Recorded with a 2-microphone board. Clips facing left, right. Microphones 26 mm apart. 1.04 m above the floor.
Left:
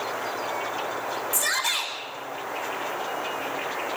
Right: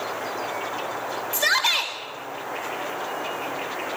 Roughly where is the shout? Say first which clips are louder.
Right 6 dB; right.